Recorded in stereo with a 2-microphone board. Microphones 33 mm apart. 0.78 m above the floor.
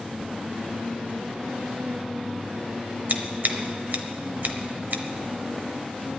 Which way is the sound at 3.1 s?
65° right (ahead or behind).